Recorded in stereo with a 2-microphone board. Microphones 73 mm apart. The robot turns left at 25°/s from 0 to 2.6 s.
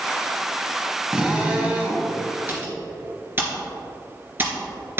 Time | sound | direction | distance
1.1 | a drill | 10° right (ahead or behind) | 1.4 m
2.5 | typing on a keyboard | 35° right (ahead or behind) | 2 m